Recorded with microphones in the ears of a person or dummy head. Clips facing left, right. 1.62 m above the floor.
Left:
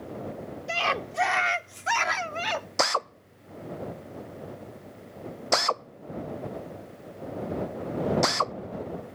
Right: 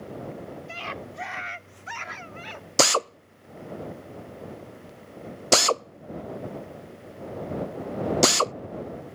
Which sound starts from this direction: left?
A scream, at 0.7 s.